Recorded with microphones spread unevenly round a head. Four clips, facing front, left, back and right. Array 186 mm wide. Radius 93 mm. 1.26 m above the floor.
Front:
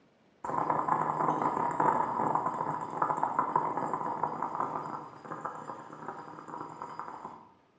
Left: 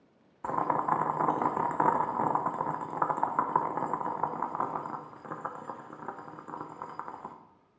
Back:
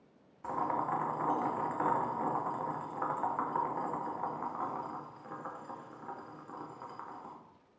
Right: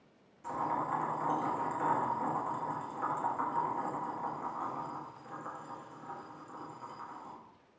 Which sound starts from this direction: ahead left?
Boiling, at 0.4 s.